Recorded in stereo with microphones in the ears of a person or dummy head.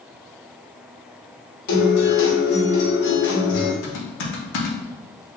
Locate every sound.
1.7 s a guitar: 45° left (ahead or behind), 0.9 m
3.8 s typing on a keyboard: 65° left (ahead or behind), 0.9 m